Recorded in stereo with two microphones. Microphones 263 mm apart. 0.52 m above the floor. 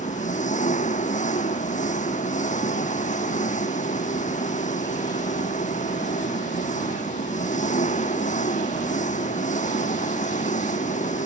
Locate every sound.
0.0 s an engine running: 25° left (ahead or behind)